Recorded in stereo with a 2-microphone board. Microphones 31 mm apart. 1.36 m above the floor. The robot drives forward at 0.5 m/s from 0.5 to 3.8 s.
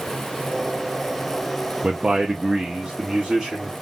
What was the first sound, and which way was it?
A man speaking, 25° right (ahead or behind).